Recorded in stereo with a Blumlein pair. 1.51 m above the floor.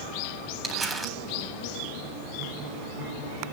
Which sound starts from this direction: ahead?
Crumpling, at 0.6 s.